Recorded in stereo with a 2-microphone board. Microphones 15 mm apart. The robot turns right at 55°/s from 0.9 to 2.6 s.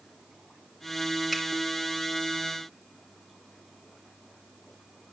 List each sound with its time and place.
1.3 s a finger snap: 30° right (ahead or behind), 4 m; by 1.4 s 25° right (ahead or behind), 4 m